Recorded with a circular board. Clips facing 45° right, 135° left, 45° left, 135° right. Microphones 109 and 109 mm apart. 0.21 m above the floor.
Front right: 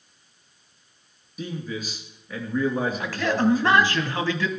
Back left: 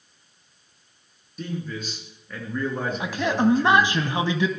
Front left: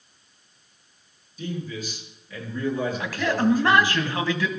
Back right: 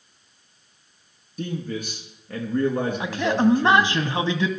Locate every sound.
1.4 s a man speaking: 130° right, 3 m
3.0 s a man speaking: 175° right, 1.1 m